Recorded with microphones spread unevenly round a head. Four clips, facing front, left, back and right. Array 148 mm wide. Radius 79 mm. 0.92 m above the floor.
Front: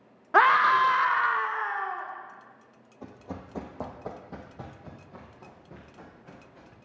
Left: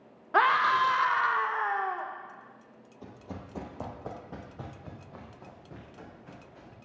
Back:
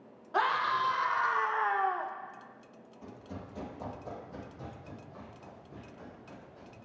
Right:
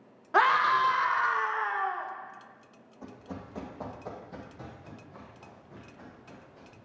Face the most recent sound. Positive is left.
turn(degrees=50)